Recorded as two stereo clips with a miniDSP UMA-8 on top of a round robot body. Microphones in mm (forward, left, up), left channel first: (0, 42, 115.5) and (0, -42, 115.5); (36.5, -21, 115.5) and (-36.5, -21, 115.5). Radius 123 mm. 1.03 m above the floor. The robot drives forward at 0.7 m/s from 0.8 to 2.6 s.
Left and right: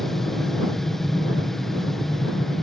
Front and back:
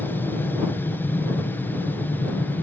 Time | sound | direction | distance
0.0 | an aircraft | 5° left | ?